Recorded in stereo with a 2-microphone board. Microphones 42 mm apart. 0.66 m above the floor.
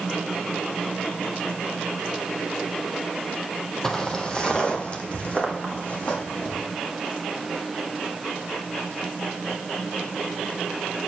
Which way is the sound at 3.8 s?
15° left (ahead or behind).